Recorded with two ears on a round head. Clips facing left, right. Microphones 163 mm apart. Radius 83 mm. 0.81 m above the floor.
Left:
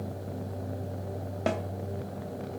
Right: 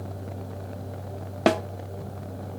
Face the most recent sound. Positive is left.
turn(degrees=-80)